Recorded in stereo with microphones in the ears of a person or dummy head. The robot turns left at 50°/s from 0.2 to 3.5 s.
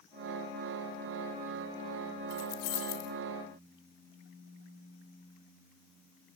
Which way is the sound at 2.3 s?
130° left.